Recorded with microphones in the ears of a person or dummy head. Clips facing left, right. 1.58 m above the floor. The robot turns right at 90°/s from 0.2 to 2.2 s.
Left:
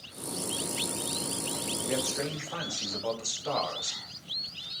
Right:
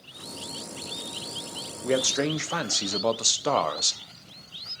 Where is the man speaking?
120° right, 0.8 m; by 4.0 s 90° right, 0.8 m.